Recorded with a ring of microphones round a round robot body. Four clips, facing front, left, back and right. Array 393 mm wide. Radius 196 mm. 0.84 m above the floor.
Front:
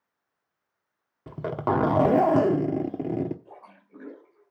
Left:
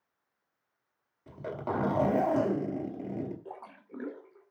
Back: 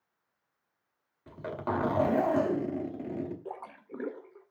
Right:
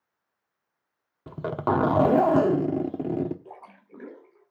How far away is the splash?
About 3 m.